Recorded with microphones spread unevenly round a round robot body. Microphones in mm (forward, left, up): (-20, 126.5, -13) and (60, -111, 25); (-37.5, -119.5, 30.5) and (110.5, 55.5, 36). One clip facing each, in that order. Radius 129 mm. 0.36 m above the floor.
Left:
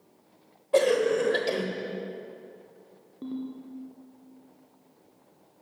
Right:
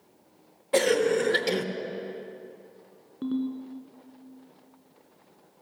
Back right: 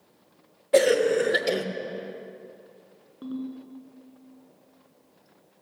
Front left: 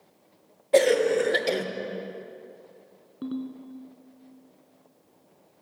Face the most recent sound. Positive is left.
turn(degrees=-10)